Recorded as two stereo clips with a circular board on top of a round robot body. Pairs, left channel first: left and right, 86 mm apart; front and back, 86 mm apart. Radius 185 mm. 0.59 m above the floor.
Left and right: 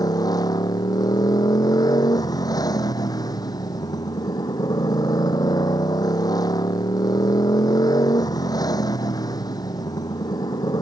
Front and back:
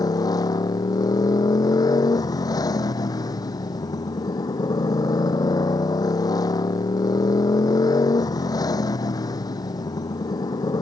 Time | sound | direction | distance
0.0 | a motorcycle | 45° left | ?